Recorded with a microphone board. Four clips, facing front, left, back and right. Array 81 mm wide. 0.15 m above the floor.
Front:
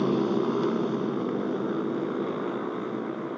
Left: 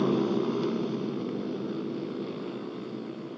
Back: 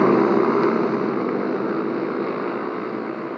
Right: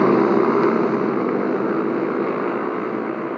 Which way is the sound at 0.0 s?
135° right.